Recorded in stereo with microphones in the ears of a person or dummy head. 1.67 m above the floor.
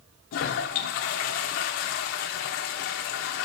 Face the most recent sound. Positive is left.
turn(degrees=45)  # may be behind; listen again after turning